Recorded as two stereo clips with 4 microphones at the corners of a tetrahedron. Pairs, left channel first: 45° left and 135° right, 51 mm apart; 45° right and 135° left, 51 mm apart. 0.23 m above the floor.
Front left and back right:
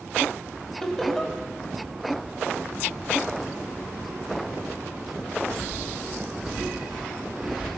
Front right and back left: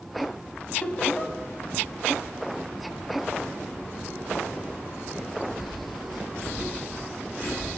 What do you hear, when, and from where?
0.8 s laughter: 25° right, 1.4 m